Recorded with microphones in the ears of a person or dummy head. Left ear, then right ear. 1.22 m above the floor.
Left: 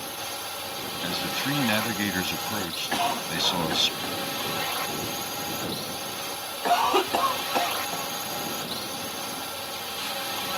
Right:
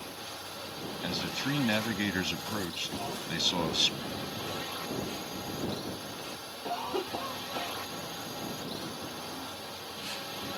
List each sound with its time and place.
0.0 s a drone: 30° left (ahead or behind)
1.0 s a man speaking: 10° left (ahead or behind)
2.9 s a cough: 50° left (ahead or behind)